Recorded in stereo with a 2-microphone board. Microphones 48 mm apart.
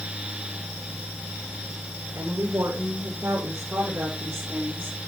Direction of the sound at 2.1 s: 80° right.